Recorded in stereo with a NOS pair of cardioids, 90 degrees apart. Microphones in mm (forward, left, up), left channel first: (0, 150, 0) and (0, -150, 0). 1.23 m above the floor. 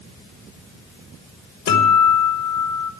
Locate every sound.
1.7 s a guitar: 60° left, 2 m